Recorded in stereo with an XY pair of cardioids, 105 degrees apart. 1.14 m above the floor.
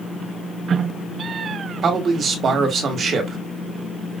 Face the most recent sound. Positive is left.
turn(degrees=-50)